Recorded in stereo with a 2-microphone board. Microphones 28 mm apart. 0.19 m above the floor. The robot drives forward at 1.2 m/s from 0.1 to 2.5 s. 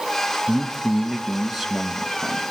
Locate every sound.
0.5 s a man speaking: 15° right (ahead or behind), 1.2 m; by 2.4 s 5° right (ahead or behind), 3 m